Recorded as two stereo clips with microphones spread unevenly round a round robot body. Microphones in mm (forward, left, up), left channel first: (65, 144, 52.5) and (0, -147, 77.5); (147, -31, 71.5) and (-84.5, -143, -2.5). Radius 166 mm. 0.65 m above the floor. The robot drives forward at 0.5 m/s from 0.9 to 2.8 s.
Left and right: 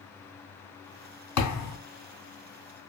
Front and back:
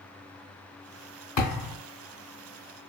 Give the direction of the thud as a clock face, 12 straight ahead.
10 o'clock.